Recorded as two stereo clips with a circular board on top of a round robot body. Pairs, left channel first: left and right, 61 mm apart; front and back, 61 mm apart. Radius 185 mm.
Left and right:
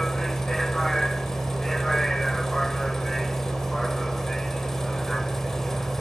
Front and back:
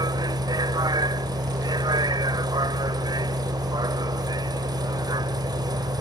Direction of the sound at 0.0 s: 175° left.